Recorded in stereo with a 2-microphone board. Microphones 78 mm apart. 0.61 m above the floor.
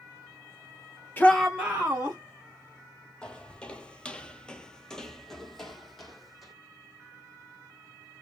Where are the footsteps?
15° left (ahead or behind), 0.9 m; by 6.5 s centre (ahead or behind), 1.3 m.